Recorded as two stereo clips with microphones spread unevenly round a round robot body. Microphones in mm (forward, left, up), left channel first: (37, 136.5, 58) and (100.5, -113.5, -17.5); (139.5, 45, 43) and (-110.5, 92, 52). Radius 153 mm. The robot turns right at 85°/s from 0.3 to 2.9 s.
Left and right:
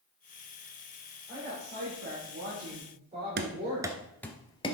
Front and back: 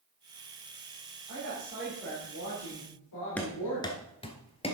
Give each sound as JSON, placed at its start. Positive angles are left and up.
{"t": 1.3, "sound": "a woman speaking", "azimuth_deg": -155, "distance_m": 3.5}
{"t": 3.4, "sound": "running footsteps", "azimuth_deg": -90, "distance_m": 0.8}